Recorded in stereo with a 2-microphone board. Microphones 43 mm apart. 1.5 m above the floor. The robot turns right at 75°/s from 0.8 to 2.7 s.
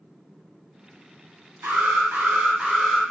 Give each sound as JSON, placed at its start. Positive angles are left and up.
{"t": 1.6, "sound": "an alarm", "azimuth_deg": -100, "distance_m": 0.8}